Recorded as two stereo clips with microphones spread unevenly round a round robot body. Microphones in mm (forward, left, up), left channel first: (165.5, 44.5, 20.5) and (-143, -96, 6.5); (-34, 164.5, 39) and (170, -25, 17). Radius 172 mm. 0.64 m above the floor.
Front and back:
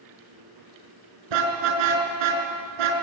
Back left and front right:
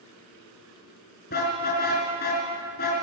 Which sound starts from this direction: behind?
A car horn, at 1.3 s.